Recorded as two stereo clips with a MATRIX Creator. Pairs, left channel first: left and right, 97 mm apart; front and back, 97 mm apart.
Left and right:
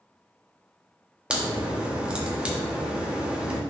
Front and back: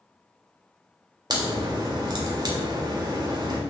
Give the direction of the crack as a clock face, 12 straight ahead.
6 o'clock.